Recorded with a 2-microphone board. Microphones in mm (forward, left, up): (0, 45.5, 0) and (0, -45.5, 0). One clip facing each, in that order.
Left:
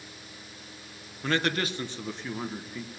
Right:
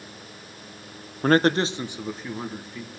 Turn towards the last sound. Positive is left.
turn(degrees=5)  # may be behind; listen again after turning